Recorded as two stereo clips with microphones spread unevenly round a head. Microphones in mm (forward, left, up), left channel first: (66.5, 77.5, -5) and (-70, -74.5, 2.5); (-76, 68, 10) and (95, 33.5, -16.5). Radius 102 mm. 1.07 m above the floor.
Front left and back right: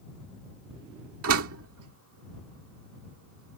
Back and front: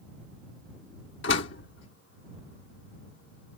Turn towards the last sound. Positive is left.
turn(degrees=-155)